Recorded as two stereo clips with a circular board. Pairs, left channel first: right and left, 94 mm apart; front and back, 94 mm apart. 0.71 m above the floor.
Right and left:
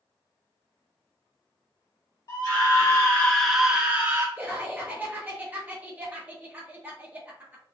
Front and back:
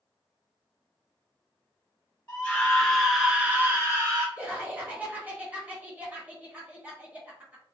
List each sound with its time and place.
2.3 s a scream: 65° right, 1.1 m; by 4.3 s 145° left, 1.0 m
4.4 s laughter: 135° left, 0.9 m